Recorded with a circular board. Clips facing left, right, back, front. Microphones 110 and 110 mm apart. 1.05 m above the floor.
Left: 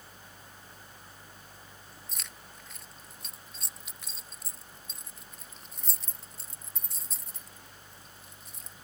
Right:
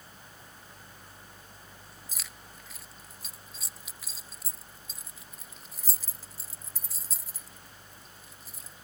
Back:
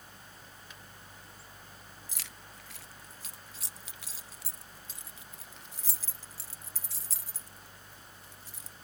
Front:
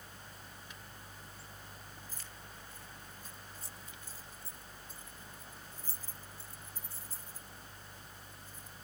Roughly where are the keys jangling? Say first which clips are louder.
Even, even; behind.